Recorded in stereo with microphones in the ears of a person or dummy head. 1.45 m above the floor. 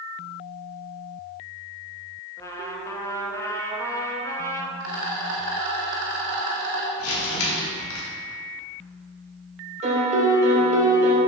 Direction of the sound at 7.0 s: 85° left.